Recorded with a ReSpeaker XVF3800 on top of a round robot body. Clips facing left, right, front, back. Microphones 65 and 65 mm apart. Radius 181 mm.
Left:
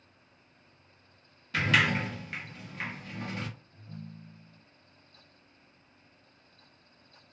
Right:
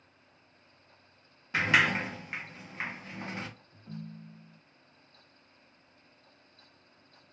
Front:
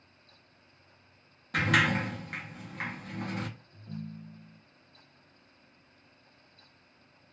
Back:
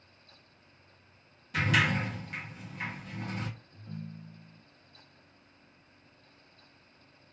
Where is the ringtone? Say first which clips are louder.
Right 2 dB, front 2 dB; 85° right, 0.6 m.